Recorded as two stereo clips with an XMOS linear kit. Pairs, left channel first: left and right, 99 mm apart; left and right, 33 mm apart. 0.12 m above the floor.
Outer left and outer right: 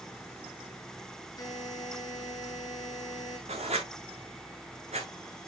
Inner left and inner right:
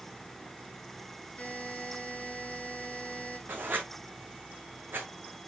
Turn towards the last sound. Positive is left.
turn(degrees=-85)